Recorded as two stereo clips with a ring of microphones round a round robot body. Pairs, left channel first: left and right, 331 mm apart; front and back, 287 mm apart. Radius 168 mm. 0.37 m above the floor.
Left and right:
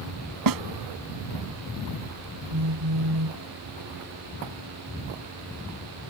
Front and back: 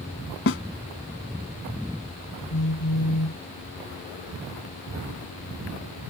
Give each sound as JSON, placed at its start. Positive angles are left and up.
{"t": 0.5, "sound": "a snare drum", "azimuth_deg": -55}
{"t": 2.5, "sound": "a phone buzzing", "azimuth_deg": -50}